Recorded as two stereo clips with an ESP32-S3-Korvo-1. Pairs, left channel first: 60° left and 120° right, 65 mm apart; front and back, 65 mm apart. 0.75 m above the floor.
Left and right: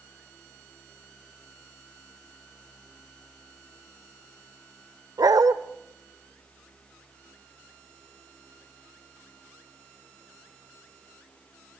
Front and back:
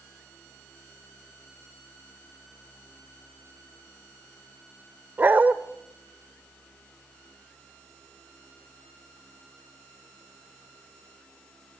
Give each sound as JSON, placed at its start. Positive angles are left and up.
{"t": 5.2, "sound": "a dog barking", "azimuth_deg": -120, "distance_m": 0.8}